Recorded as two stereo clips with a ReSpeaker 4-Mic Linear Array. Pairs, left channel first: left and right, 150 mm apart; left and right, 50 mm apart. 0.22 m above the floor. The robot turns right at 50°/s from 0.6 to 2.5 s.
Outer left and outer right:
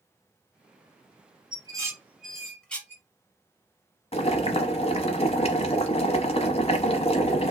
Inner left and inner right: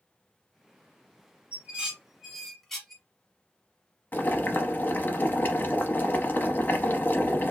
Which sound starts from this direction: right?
Dishes clattering, at 1.5 s.